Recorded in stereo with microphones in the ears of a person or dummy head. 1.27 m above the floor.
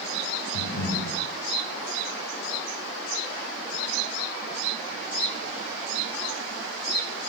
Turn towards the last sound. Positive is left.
turn(degrees=70)  # may be behind; listen again after turning